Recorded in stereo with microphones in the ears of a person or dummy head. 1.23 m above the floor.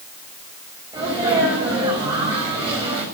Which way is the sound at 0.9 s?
20° right (ahead or behind).